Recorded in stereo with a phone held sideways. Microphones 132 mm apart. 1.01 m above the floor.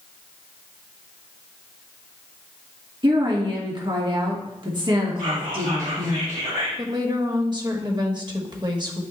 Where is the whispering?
85° right, 4 m.